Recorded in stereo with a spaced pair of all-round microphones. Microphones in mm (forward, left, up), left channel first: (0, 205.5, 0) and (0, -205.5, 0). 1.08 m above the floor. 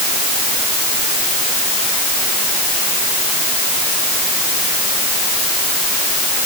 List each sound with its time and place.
Only background noise.